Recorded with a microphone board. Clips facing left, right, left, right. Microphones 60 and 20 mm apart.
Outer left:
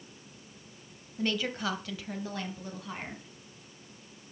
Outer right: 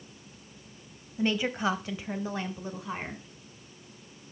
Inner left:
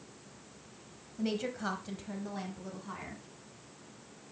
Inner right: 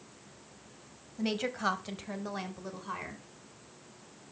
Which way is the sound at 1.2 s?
20° right (ahead or behind).